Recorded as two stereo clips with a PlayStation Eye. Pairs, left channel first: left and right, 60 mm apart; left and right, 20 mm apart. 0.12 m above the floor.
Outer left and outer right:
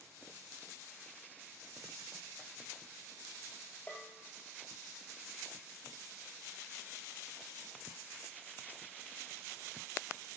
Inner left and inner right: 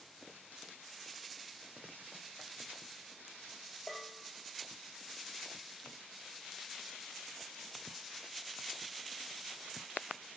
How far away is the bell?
About 2.5 m.